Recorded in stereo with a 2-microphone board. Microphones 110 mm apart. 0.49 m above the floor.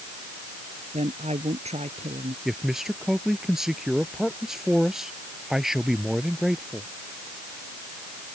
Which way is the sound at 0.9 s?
75° right (ahead or behind).